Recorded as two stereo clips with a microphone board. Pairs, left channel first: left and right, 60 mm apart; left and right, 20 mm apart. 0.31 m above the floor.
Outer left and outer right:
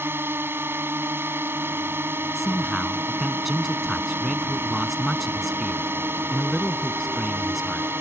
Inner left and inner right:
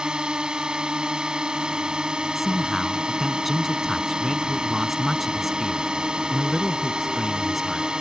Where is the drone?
40° right (ahead or behind).